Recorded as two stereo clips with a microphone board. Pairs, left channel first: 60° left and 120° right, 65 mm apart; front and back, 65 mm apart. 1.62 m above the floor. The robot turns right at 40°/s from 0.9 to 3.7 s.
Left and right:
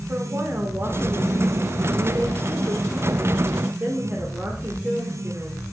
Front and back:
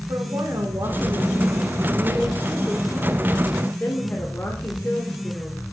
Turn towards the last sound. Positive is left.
turn(degrees=-60)